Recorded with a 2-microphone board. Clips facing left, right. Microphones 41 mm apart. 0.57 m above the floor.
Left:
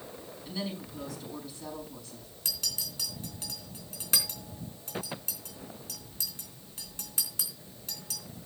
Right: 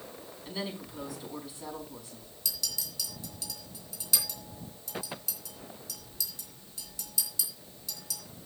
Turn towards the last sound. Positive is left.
turn(degrees=45)  # may be behind; listen again after turning